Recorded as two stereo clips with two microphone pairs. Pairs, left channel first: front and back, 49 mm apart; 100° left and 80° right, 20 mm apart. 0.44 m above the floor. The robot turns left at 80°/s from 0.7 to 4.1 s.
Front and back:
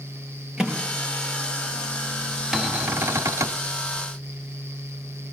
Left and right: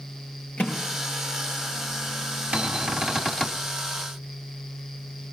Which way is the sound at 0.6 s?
110° left.